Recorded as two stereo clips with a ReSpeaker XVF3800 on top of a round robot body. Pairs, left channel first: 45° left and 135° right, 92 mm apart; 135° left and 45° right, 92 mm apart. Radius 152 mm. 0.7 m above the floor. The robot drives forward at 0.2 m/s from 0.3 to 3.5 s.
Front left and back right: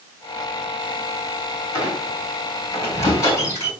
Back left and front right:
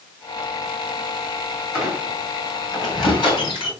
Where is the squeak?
100° left, 5.5 m; by 3.7 s 105° left, 6 m.